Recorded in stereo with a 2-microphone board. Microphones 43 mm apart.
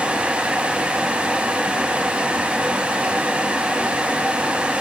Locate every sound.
Only background noise.